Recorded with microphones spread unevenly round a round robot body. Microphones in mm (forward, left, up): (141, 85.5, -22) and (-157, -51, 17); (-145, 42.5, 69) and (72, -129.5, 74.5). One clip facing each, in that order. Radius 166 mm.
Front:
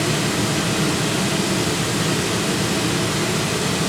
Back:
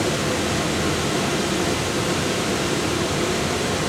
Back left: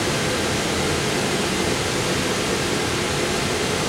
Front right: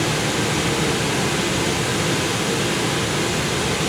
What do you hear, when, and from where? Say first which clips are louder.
0.0 s running water: front 1 dB, front right 1 dB; 15° right, 4 m